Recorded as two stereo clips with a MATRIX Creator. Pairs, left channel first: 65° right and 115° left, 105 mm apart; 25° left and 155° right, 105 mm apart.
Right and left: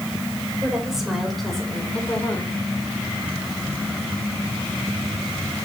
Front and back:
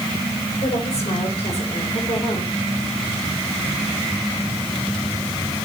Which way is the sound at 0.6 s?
30° left.